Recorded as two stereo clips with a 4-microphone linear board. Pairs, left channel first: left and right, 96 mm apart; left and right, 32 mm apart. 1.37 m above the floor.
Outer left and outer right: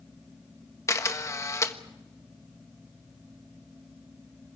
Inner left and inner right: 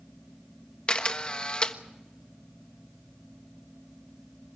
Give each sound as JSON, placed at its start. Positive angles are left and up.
{"t": 0.9, "sound": "a camera shutter", "side_deg": 30, "distance_m": 1.4}